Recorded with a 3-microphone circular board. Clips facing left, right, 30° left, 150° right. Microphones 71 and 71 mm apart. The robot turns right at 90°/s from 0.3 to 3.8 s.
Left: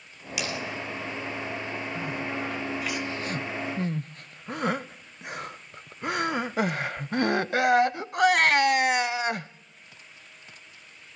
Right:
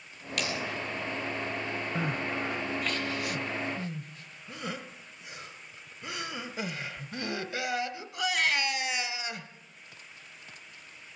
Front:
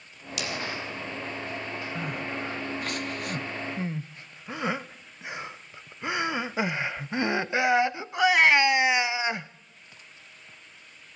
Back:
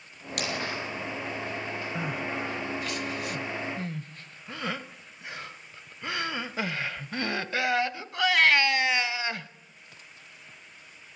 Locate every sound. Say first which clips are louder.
0.4 s cutlery clinking: left 1 dB, back 1 dB; 170° left, 5 m; by 0.5 s 175° right, 5 m
1.9 s crying: even, back 1 dB; 70° right, 0.7 m; by 9.5 s 95° left, 0.7 m